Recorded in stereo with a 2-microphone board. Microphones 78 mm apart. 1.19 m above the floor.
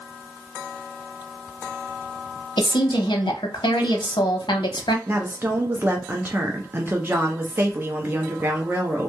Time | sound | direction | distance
2.6 | a woman speaking | 75° left (ahead or behind) | 0.7 m
5.1 | a woman speaking | 25° right (ahead or behind) | 0.5 m